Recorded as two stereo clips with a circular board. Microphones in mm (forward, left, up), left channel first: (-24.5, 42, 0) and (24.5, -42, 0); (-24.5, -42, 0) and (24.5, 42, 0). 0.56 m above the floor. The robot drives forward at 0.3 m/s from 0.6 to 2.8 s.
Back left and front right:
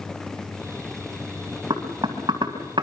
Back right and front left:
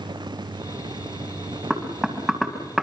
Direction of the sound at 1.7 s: 25° right.